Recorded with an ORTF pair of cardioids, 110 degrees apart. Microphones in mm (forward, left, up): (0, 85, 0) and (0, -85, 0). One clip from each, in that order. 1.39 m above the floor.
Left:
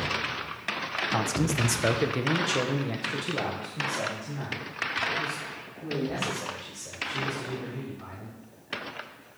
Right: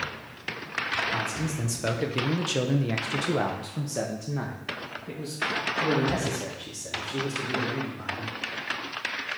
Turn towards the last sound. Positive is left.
turn(degrees=-65)